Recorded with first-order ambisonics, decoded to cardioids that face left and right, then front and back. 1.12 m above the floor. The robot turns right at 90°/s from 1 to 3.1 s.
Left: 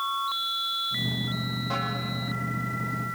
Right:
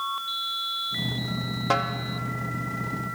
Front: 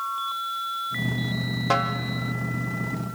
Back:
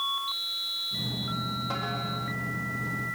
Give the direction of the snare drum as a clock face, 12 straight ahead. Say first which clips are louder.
Right 6 dB, front 13 dB; 2 o'clock.